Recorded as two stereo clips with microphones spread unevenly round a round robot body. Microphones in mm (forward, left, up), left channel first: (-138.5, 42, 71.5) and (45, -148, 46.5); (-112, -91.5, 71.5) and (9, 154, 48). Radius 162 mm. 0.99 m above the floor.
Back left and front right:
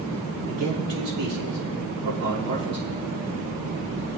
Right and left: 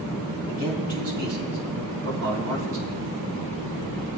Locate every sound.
0.5 s a man speaking: straight ahead, 6 m; by 2.9 s 25° left, 5 m